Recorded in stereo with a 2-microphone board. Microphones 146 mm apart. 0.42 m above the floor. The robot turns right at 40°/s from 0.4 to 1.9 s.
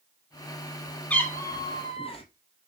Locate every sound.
1.1 s a cat meowing: 10° left, 1.7 m; by 2.2 s 40° left, 1.7 m